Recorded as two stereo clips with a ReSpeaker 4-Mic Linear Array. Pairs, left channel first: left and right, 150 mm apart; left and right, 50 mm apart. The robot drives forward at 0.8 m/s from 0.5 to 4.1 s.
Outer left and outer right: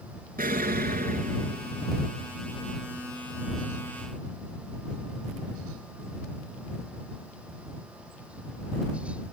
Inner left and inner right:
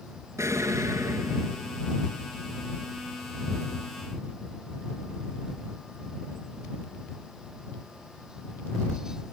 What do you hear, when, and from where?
0.4 s an explosion: 75° right (ahead or behind), 1.0 m; by 2.0 s 45° right (ahead or behind), 1.3 m